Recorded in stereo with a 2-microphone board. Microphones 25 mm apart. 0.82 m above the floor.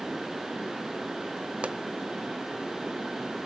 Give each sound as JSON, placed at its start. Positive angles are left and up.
{"t": 1.6, "sound": "a pop", "side_deg": -55, "distance_m": 0.7}